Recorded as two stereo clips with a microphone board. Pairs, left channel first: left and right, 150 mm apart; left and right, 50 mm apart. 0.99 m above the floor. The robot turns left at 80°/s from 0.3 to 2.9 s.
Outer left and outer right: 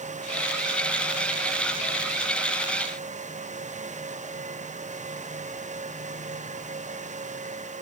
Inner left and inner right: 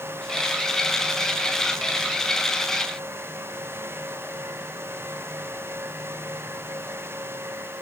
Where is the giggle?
I don't hear a giggle.